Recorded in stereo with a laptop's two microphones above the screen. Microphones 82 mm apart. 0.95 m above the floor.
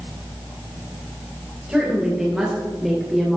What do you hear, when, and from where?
1.7 s a woman speaking: 10° right (ahead or behind), 4 m; by 3.4 s centre (ahead or behind), 3 m